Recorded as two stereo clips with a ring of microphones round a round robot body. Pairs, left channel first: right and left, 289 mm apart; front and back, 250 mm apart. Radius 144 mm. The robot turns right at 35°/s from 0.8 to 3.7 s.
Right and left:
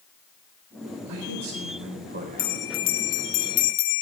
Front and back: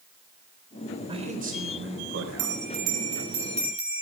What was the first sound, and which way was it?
A man speaking, 110° left.